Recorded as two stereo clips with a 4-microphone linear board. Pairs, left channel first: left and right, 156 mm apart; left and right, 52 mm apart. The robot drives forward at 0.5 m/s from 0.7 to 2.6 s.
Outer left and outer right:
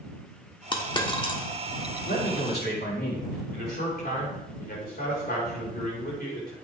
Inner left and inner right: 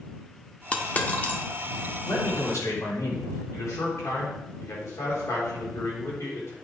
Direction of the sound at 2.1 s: 80° left.